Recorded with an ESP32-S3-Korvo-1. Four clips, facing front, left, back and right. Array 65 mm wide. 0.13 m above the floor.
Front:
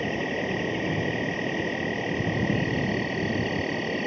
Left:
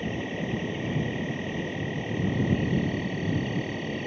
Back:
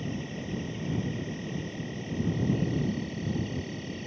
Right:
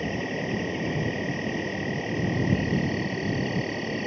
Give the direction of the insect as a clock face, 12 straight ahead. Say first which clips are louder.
Right 2 dB, front 8 dB; 12 o'clock.